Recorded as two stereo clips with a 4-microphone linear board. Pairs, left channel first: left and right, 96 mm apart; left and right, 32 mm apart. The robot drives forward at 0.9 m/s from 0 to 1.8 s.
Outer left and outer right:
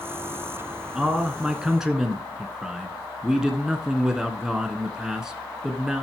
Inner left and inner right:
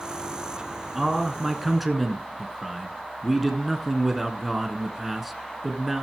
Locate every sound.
0.9 s a man speaking: 5° right (ahead or behind), 1.1 m